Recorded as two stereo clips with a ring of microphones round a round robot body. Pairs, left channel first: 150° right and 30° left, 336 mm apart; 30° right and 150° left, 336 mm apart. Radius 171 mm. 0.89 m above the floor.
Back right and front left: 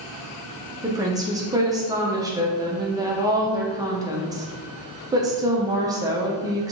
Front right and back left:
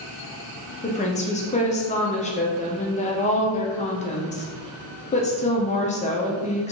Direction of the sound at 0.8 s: 30° right.